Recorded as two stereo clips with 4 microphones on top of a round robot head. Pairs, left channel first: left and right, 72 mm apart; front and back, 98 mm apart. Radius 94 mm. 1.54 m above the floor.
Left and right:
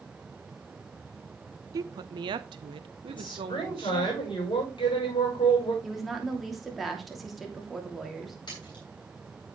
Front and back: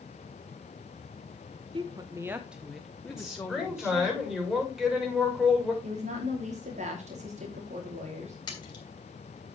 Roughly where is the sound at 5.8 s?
Behind.